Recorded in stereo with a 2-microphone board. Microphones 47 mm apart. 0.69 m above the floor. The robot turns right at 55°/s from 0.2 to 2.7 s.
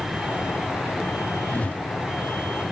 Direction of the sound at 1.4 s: 40° left (ahead or behind).